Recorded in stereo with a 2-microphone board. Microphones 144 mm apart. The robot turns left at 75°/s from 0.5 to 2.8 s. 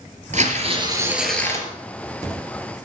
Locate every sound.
0.3 s tearing paper: 120° right, 3.5 m; by 1.7 s 145° left, 3.5 m